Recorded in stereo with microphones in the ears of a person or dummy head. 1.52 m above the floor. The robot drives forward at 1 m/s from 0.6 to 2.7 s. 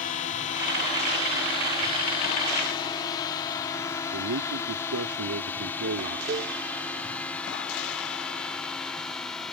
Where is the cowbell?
35° right (ahead or behind).